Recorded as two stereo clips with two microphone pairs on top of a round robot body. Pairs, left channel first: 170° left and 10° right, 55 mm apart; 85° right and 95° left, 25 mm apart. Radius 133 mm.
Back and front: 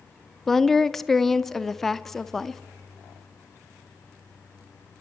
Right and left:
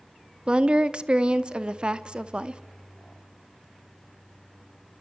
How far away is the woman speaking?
About 1.0 m.